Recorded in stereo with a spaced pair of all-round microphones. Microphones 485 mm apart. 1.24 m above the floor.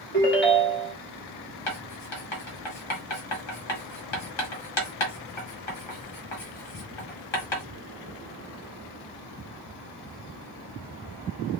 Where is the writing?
65° left (ahead or behind), 1.0 m.